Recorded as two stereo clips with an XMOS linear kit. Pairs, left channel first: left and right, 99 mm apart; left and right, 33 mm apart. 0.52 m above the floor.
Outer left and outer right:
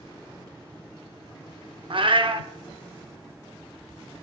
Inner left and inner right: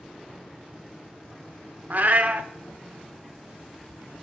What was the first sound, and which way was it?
A cat meowing, 55° right (ahead or behind).